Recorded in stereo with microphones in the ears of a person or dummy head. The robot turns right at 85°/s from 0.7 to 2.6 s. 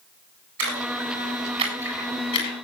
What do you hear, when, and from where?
0.6 s a splash: 65° right (ahead or behind), 8.5 m; by 2.5 s 40° left (ahead or behind), 8.5 m